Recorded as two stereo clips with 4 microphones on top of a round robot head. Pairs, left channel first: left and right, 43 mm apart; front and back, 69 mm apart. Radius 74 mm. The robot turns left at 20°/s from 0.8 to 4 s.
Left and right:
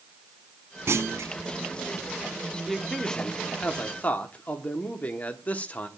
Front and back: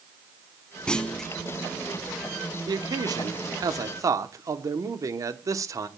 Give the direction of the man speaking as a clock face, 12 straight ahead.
6 o'clock.